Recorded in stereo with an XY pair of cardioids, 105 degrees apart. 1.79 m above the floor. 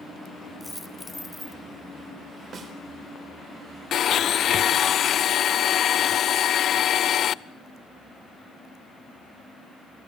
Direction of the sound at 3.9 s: 60° left.